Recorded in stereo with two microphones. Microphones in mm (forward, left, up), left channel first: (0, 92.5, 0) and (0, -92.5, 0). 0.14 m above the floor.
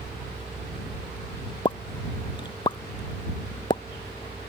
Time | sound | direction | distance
1.6 | a pop | 25° left (ahead or behind) | ?